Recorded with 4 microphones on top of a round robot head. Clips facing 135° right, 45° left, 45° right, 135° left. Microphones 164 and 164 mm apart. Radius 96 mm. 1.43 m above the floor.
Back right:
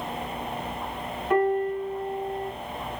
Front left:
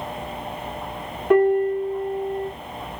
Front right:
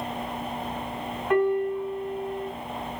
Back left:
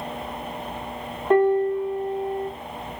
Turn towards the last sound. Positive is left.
turn(degrees=75)